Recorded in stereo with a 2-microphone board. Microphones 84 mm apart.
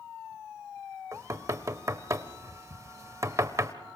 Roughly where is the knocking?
Right.